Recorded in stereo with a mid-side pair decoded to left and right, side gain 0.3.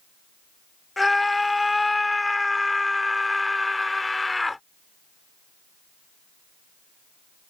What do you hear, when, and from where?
1.0 s a scream: 25° left